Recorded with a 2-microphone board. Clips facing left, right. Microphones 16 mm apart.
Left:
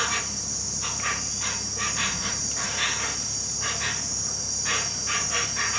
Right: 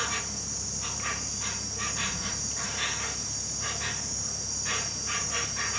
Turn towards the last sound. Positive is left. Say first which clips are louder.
# left 5 dB
turn(degrees=20)  # may be behind; listen again after turning